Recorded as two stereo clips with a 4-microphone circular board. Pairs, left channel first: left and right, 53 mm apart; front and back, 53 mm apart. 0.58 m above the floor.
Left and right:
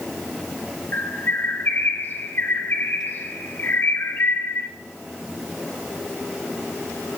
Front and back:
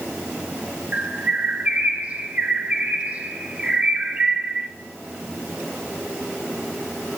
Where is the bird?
125° left, 1.1 m.